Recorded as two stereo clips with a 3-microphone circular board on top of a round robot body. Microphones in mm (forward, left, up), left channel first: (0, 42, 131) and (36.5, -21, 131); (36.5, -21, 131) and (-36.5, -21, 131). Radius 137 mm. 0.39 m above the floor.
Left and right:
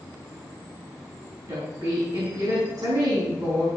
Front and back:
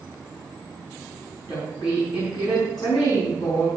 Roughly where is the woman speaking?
Ahead right.